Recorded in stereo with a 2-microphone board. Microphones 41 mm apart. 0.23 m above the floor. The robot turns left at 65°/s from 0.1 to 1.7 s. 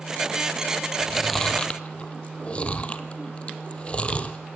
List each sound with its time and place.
1.0 s chewing: 20° right (ahead or behind), 1.1 m; by 4.4 s 30° left (ahead or behind), 1.1 m